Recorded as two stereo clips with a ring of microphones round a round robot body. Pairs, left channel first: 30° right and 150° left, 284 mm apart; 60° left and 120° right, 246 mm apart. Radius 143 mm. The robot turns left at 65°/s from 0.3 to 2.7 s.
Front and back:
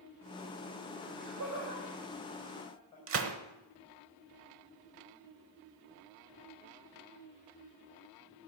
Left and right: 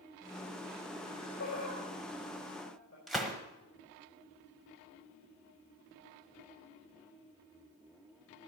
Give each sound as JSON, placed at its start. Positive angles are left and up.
{"t": 1.0, "sound": "laughter", "azimuth_deg": 150, "distance_m": 5.0}
{"t": 3.1, "sound": "a gunshot", "azimuth_deg": 150, "distance_m": 0.9}